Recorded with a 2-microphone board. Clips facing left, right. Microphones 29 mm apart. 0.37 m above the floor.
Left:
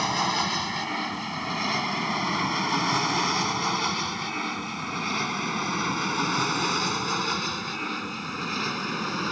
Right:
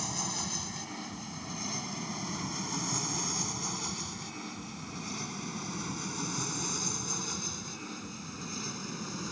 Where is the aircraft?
50° left (ahead or behind).